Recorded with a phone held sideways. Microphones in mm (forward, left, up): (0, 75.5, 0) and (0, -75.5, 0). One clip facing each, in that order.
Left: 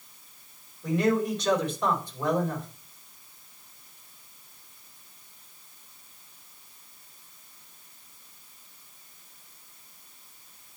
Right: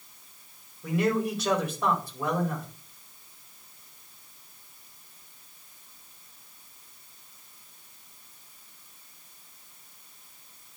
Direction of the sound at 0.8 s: 5° right (ahead or behind).